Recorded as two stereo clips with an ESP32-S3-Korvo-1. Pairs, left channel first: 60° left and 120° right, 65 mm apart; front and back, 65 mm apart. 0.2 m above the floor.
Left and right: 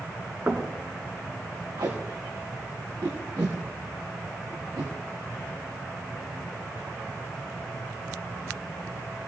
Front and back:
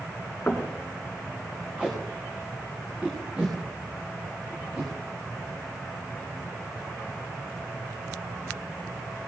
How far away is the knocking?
About 2 m.